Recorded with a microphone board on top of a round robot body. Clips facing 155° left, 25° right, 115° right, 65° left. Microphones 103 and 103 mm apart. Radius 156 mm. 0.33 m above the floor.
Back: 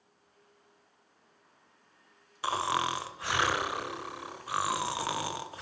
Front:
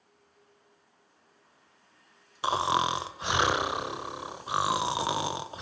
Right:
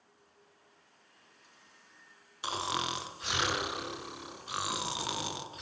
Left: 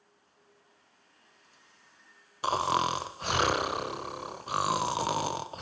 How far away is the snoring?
About 1.3 m.